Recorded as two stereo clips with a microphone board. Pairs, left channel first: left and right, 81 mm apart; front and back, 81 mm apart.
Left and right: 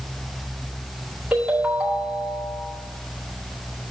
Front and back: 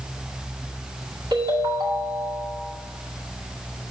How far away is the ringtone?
About 2 m.